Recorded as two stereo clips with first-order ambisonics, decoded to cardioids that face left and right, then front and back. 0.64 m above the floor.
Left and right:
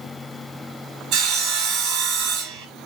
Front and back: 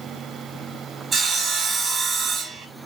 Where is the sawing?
105° right, 1.0 m.